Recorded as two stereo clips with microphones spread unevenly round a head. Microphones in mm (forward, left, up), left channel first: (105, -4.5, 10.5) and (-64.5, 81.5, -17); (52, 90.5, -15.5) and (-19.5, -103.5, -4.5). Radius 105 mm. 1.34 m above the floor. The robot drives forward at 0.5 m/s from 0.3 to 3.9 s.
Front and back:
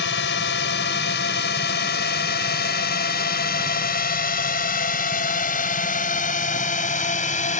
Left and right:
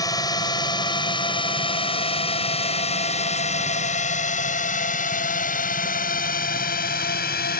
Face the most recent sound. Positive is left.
turn(degrees=25)